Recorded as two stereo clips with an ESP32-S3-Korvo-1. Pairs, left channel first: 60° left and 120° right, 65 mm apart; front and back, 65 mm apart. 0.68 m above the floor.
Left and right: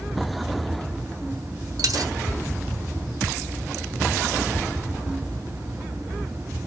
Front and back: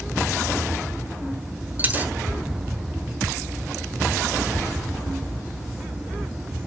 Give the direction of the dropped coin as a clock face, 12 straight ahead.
4 o'clock.